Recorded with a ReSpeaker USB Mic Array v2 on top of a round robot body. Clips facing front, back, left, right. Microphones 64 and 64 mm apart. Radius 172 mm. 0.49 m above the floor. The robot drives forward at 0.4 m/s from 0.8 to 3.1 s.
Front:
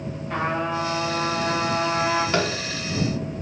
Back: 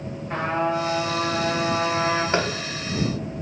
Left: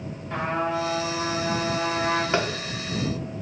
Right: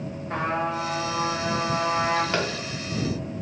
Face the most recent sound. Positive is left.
turn(degrees=165)